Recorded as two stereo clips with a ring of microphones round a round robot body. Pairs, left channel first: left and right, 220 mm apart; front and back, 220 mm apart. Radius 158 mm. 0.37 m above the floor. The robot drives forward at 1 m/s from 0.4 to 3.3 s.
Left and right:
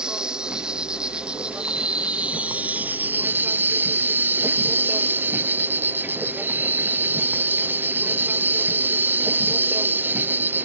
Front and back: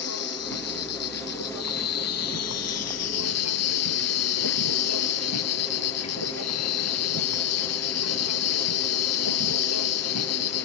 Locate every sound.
0.0 s an insect: 5° right; by 10.7 s 10° right